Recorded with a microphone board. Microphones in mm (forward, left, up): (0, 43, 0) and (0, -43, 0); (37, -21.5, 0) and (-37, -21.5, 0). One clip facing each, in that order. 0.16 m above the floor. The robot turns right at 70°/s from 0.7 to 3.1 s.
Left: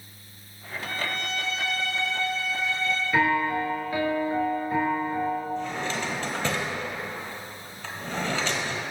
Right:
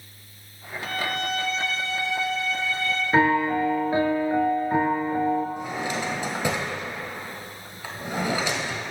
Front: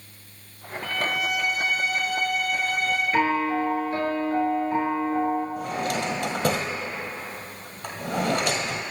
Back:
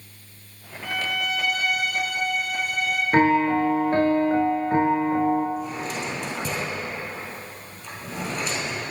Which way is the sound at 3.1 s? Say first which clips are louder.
Right 4 dB, back 6 dB; 140° right.